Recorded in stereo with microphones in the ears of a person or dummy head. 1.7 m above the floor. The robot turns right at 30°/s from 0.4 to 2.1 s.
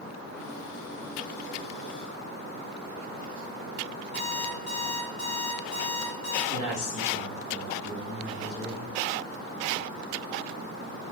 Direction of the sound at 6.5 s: 80° left.